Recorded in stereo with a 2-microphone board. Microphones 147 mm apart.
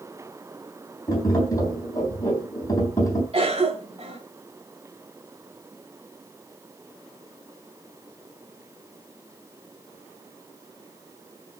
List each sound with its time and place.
1.1 s tapping: 25° left (ahead or behind), 3 m
3.3 s a cough: 40° right (ahead or behind), 2.5 m